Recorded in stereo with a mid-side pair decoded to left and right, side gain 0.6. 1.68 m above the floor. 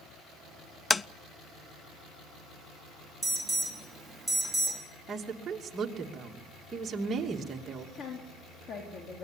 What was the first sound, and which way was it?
Tapping, 20° left.